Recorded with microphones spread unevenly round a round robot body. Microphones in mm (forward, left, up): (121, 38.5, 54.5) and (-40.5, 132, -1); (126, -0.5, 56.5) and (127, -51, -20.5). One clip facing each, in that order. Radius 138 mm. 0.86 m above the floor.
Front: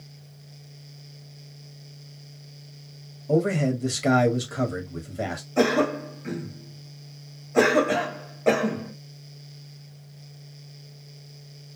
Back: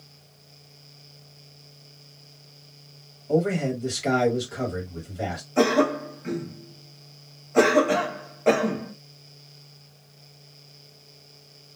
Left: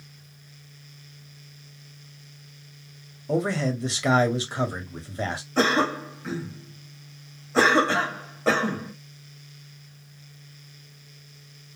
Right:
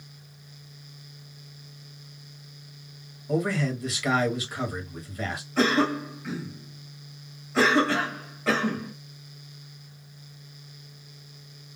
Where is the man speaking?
Straight ahead, 1.3 m.